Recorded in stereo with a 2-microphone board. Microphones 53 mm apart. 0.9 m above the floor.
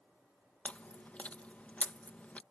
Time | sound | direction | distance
0.7 | chewing | 30° left (ahead or behind) | ?